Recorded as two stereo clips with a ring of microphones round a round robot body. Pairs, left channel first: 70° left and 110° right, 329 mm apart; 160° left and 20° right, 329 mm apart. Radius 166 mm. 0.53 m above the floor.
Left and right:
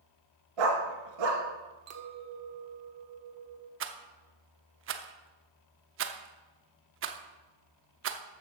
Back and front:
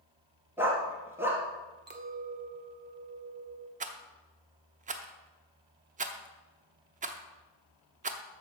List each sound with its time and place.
0.6 s a dog barking: 105° right, 2 m
1.9 s a clink: 80° right, 1.1 m
3.8 s a rattle: 80° right, 0.8 m